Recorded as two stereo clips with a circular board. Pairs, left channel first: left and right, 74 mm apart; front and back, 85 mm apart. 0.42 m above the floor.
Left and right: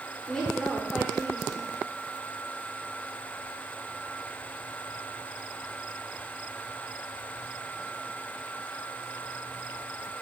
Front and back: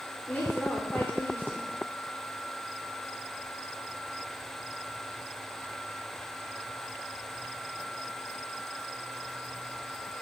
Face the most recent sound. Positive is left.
turn(degrees=30)